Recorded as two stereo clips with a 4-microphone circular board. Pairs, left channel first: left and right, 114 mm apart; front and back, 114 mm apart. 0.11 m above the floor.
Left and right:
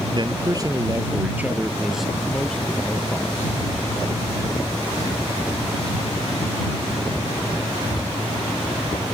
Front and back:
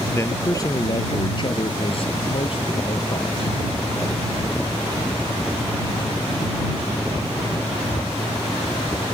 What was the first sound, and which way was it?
A man speaking, 60° right.